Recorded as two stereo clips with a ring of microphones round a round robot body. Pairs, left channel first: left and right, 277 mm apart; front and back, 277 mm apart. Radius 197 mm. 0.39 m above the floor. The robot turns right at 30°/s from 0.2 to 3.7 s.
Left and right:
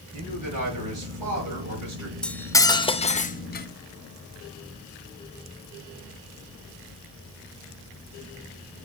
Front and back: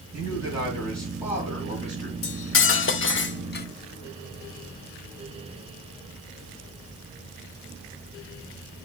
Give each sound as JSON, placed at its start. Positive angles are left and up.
{"t": 0.1, "sound": "a man speaking", "azimuth_deg": -125, "distance_m": 6.5}
{"t": 2.2, "sound": "cutlery clinking", "azimuth_deg": 5, "distance_m": 0.7}